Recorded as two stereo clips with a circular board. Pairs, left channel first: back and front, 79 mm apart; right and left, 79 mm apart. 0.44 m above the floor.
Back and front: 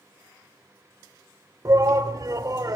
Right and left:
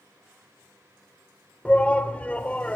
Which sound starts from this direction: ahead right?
A shout, at 1.6 s.